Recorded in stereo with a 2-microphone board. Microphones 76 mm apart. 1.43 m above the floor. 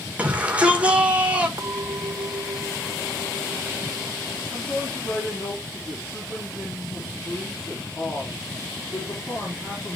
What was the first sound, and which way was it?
A shout, 20° right (ahead or behind).